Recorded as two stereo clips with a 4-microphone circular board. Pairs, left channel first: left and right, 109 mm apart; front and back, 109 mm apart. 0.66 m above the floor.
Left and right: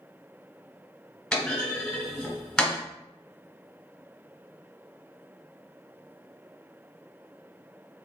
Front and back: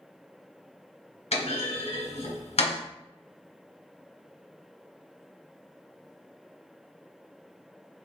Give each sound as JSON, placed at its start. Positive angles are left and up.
{"t": 1.3, "sound": "a clunk", "azimuth_deg": 5, "distance_m": 1.5}